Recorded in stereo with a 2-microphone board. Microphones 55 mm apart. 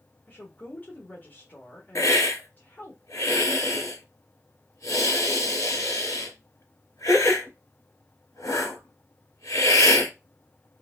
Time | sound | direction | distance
0.3 | a woman speaking | 35° left (ahead or behind) | 1.3 m
1.9 | a hiss | 90° left | 2 m